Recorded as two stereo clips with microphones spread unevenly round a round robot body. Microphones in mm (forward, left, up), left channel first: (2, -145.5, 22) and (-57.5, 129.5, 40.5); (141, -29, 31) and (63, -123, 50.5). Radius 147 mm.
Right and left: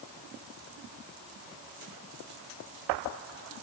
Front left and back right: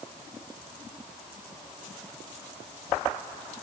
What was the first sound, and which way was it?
Only background noise.